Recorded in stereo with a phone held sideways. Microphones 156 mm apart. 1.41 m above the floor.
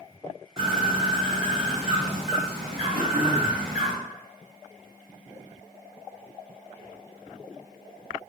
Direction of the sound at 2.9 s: 75° right (ahead or behind).